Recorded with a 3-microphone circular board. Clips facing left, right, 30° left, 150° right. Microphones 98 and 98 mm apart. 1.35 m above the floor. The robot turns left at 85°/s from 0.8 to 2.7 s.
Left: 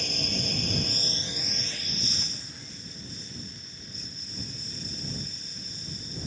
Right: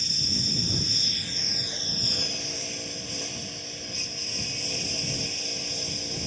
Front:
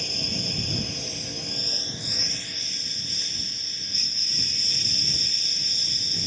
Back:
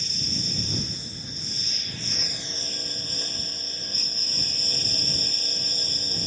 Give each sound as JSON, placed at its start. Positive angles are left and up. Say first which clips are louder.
{"t": 0.0, "sound": "a lawn mower", "louder": "left 2 dB, front 2 dB", "azimuth_deg": 60}